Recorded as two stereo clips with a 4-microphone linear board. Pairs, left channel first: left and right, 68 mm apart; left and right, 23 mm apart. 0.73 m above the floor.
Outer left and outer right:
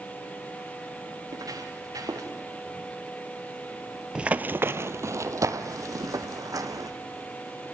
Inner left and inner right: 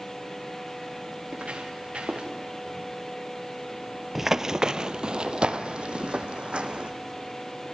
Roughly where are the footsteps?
Right.